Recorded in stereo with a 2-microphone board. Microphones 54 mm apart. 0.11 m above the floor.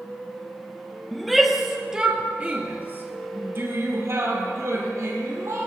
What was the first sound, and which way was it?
A shout, 5° left (ahead or behind).